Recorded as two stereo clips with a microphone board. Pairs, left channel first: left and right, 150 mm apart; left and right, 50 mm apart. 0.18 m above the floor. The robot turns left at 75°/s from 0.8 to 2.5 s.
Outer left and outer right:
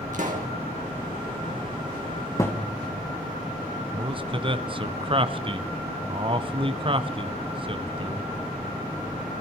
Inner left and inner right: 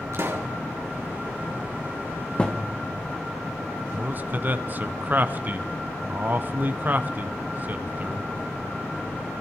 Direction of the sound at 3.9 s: 35° right (ahead or behind).